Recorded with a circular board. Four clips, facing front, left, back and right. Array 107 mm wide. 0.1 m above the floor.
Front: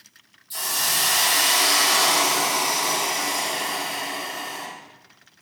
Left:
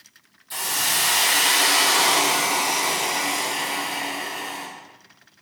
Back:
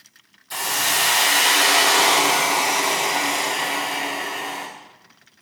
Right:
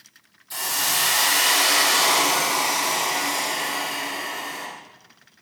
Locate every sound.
0.5 s a hiss: 175° left, 6 m